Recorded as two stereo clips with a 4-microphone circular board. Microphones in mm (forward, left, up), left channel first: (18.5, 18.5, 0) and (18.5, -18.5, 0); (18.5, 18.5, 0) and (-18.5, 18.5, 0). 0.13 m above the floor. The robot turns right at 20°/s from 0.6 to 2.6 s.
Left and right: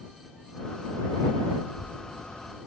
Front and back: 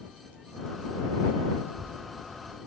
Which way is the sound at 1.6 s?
145° right.